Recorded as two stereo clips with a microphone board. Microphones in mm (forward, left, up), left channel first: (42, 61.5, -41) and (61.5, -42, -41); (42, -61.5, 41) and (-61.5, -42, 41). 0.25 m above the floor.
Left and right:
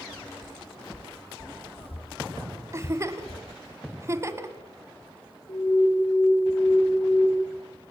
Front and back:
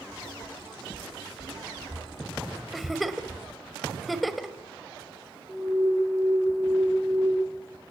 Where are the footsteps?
80° left, 7 m; by 3.4 s 100° left, 5.5 m.